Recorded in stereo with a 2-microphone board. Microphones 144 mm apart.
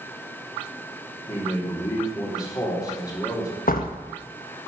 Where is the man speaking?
25° left (ahead or behind), 3.5 m.